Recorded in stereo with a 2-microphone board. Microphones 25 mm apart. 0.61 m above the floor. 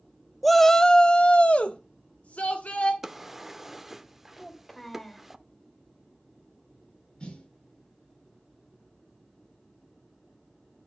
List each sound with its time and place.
0.4 s a shout: centre (ahead or behind), 0.6 m; by 2.9 s 75° left (ahead or behind), 1.8 m
3.0 s a drawer: 15° right (ahead or behind), 0.7 m
4.4 s a child speaking: 10° left (ahead or behind), 2.0 m
7.2 s a snare drum: 50° left (ahead or behind), 4.5 m